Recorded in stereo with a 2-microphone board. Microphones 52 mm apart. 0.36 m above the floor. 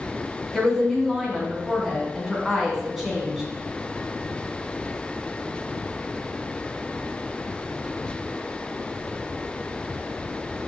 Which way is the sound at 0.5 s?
5° right (ahead or behind).